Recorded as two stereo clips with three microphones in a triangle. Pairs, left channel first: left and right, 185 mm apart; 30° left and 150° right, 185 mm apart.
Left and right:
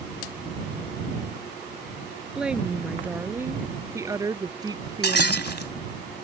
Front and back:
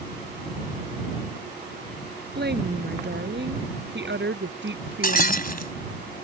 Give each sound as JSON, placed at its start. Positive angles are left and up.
{"t": 2.4, "sound": "a woman speaking", "azimuth_deg": -175}
{"t": 5.0, "sound": "breaking glass", "azimuth_deg": 70}